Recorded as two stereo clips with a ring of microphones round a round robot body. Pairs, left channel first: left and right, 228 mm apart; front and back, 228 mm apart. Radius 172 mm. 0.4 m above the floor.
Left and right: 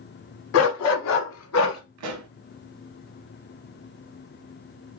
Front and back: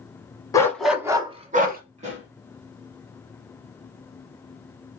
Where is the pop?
110° right, 0.6 m.